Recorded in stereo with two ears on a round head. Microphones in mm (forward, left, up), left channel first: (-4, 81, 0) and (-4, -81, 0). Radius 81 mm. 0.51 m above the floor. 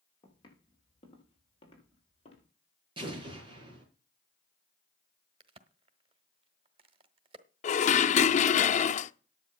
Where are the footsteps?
25° left (ahead or behind), 7 m; by 2.5 s 35° left (ahead or behind), 7 m.